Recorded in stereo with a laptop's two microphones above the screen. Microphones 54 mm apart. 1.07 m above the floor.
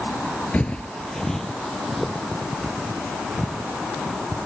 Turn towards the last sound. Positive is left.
turn(degrees=-5)  # may be behind; listen again after turning